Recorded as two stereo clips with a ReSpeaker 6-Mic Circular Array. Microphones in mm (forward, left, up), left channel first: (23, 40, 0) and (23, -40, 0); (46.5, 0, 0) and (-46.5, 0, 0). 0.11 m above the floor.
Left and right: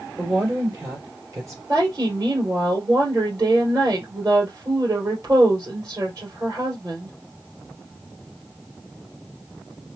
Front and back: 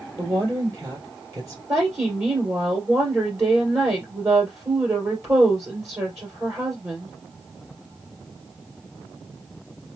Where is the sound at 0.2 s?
125° right, 2.5 m.